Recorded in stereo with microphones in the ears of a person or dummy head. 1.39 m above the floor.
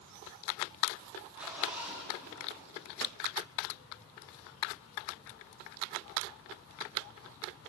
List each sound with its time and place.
1.4 s a zipper: 5° right (ahead or behind), 7.5 m